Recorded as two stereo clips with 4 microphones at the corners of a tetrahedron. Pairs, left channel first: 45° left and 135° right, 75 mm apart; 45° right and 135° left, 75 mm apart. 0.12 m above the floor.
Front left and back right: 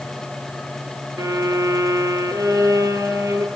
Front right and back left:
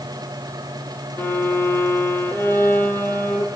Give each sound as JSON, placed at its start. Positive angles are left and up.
{"t": 1.2, "sound": "a violin", "azimuth_deg": -105, "distance_m": 2.5}